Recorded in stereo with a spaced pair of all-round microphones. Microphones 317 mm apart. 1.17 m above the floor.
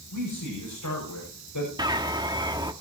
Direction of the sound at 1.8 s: 15° right (ahead or behind).